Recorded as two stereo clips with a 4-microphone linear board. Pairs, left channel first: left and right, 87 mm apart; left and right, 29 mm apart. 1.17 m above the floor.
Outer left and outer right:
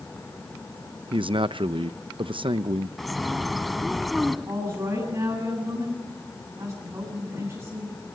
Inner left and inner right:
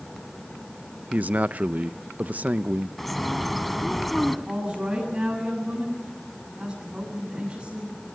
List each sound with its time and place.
1.1 s a man speaking: 70° right (ahead or behind), 0.7 m
3.0 s a bird: centre (ahead or behind), 1.4 m
4.5 s a woman speaking: 40° right (ahead or behind), 9.5 m